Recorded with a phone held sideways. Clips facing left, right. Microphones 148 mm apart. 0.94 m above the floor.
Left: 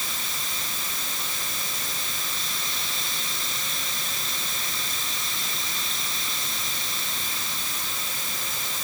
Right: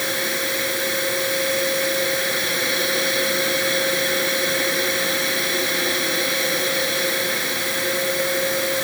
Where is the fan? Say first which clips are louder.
Right 13 dB; 70° right (ahead or behind).